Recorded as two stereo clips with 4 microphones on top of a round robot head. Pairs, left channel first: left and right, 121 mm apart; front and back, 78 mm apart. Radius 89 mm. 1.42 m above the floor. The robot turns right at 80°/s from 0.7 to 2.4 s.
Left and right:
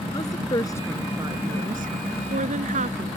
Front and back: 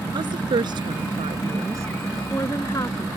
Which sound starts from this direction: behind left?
A woman speaking, at 0.1 s.